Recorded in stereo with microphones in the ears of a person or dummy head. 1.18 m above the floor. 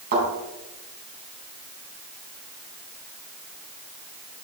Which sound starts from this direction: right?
A thud, at 0.1 s.